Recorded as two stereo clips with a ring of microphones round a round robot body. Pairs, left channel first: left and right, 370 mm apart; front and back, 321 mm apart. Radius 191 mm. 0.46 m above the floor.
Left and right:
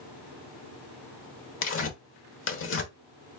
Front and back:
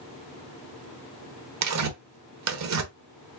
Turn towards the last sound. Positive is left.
turn(degrees=145)